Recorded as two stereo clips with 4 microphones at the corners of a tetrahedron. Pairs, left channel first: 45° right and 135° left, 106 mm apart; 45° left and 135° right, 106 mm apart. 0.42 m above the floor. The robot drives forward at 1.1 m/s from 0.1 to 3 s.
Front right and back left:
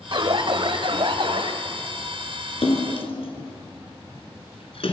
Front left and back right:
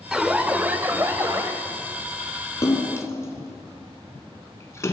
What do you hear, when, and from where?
0.1 s an alarm: 140° left, 1.5 m; by 1.5 s 165° left, 2.5 m
2.6 s a splash: 15° right, 3.5 m; by 4.9 s 20° right, 3 m